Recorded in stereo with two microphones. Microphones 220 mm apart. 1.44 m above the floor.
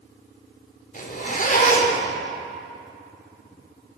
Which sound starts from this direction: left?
A zipper, at 0.9 s.